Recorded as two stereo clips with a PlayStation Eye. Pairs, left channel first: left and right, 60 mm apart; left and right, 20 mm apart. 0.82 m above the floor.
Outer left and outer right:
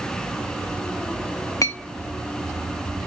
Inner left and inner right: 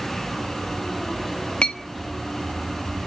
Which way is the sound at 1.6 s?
65° left (ahead or behind).